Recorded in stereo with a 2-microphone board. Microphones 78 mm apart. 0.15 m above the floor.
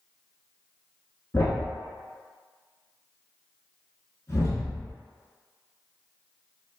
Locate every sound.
1.3 s a thud: 40° left (ahead or behind), 0.9 m